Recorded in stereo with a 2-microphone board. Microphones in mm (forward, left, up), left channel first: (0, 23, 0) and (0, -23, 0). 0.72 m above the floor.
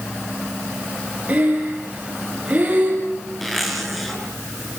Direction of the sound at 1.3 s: 30° right (ahead or behind).